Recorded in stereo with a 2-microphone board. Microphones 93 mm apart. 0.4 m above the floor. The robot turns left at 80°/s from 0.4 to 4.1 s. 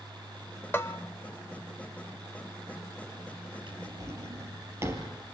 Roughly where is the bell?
Left.